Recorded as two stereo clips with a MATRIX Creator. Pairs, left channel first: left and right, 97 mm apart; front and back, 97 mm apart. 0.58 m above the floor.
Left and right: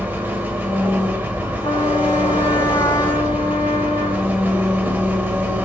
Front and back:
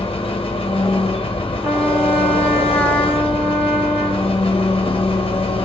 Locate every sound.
0.0 s an engine running: 20° right, 0.8 m
1.6 s a trumpet: 110° left, 0.8 m